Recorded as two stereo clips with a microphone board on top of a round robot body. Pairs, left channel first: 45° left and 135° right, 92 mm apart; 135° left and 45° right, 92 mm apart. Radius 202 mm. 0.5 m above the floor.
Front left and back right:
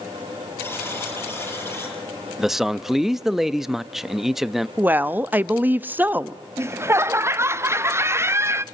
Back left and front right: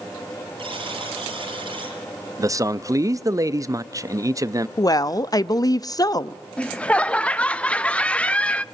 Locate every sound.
0.6 s a buzzer: 20° right, 7 m
2.4 s a man speaking: 50° right, 0.9 m
4.8 s a woman speaking: 160° left, 0.8 m
6.6 s laughter: 160° right, 0.7 m